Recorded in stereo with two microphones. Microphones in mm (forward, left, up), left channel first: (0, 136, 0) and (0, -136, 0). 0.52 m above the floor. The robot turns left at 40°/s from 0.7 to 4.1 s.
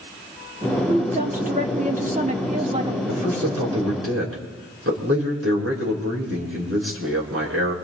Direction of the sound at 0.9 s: 25° right (ahead or behind).